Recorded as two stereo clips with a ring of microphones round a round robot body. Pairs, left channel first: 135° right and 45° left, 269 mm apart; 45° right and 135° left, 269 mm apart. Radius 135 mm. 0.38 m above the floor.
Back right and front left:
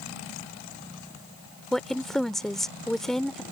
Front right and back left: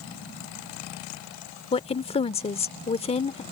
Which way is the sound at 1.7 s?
50° right.